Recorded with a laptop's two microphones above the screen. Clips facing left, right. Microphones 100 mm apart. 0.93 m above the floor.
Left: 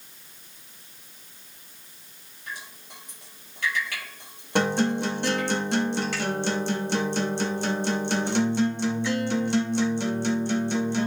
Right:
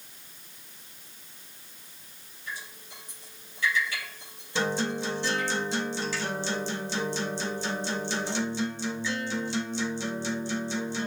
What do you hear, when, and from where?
2.5 s dripping: 65° left (ahead or behind), 7 m
4.5 s a guitar: 60° left (ahead or behind), 1.8 m